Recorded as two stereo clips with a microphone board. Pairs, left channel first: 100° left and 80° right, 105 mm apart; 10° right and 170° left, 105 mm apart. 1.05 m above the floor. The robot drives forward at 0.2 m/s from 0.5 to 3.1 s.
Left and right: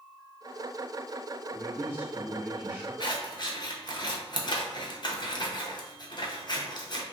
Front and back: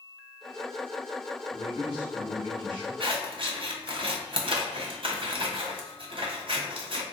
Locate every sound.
1.5 s a man speaking: 145° right, 1.6 m; by 2.9 s 150° right, 1.8 m
3.0 s scissors: 140° left, 0.5 m